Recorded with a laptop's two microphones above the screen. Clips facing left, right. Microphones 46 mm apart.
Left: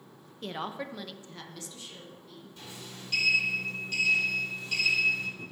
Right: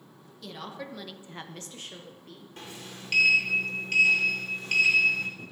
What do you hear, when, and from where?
0.4 s a woman speaking: 40° left (ahead or behind), 0.9 m; by 2.5 s 65° right (ahead or behind), 1.6 m
2.6 s a sliding door: 55° right (ahead or behind), 1.6 m